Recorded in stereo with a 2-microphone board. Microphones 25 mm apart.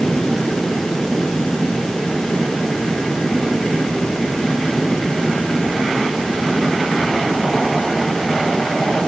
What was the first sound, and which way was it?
Only background noise.